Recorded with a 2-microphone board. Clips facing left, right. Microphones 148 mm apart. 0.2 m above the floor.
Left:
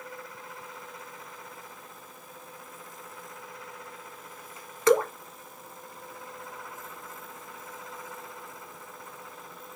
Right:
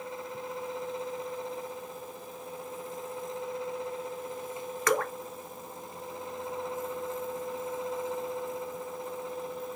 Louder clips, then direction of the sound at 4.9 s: Left 7 dB; 25° left (ahead or behind).